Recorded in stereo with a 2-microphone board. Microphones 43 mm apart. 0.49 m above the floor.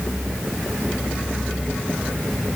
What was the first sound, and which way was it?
Only background noise.